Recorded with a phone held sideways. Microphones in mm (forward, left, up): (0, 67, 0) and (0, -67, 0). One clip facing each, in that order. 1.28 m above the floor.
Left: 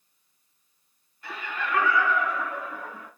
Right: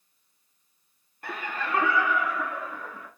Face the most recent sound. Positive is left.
turn(degrees=15)  # may be behind; listen again after turning